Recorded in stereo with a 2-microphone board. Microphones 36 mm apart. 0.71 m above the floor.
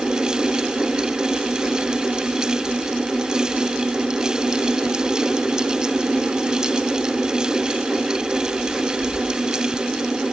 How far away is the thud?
No thud in this recording.